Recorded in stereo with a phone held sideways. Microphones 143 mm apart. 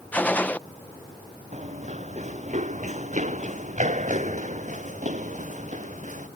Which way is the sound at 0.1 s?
10° left (ahead or behind).